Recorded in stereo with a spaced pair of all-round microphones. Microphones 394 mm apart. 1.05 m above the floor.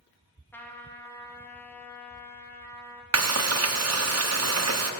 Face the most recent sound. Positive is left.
turn(degrees=-40)  # may be behind; listen again after turning